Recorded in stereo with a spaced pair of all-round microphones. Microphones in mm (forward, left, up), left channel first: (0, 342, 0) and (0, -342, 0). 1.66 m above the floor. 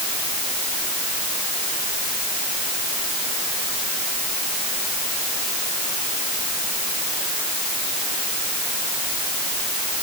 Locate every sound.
Only background noise.